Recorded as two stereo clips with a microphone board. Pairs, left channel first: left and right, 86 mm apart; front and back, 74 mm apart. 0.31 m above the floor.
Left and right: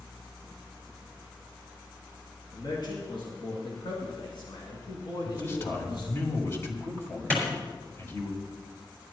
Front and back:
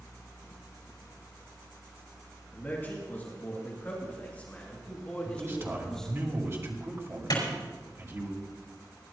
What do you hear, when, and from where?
2.5 s a man speaking: 60° left, 4 m; by 6.2 s 85° left, 1.7 m
5.2 s a man speaking: 140° left, 2 m
7.3 s a clap: 15° left, 4.5 m